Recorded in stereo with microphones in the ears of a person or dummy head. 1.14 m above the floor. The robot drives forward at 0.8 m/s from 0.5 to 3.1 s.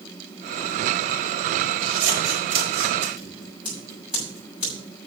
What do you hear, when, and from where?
1.8 s scissors: 80° right, 6.5 m; by 3.1 s 85° right, 6.5 m
3.2 s scissors: 10° right (ahead or behind), 7 m